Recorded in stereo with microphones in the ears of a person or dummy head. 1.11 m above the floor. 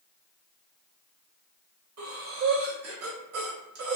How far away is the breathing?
About 1.1 m.